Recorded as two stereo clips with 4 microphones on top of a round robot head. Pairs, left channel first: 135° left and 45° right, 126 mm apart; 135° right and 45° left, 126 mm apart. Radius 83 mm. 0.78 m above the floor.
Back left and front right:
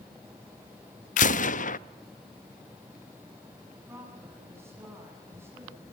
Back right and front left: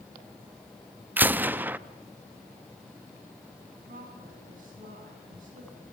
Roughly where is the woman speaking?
Ahead left.